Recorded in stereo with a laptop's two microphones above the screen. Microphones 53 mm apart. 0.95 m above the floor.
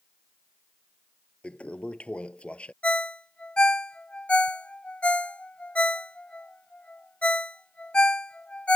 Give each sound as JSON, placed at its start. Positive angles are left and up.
{"t": 1.4, "sound": "a toilet flushing", "side_deg": 20}
{"t": 2.8, "sound": "a ringtone", "side_deg": 25}